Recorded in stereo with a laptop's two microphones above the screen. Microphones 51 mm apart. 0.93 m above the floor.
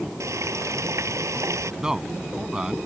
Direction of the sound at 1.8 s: 15° right (ahead or behind).